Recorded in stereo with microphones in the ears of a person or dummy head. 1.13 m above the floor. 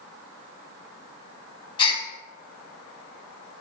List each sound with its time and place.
1.8 s a gasp: 25° left (ahead or behind), 1.0 m